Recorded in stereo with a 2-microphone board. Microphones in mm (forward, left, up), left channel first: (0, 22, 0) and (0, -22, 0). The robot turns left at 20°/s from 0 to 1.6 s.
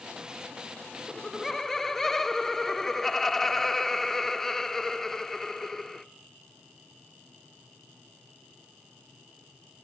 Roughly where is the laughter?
Centre.